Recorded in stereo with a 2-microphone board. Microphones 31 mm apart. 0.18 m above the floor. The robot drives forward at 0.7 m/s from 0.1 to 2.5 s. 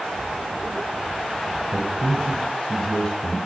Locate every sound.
1.7 s a man speaking: 25° left (ahead or behind), 1.7 m; by 3.4 s 20° left (ahead or behind), 2 m